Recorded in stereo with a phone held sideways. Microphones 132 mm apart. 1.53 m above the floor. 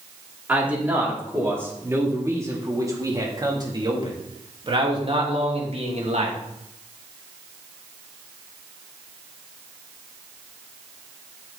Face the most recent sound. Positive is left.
turn(degrees=-60)  # may be behind; listen again after turning